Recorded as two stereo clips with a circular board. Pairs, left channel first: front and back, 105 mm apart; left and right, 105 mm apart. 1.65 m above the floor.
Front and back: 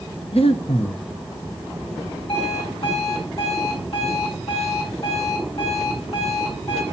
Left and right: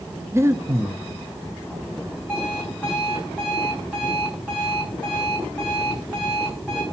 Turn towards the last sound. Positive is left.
turn(degrees=-15)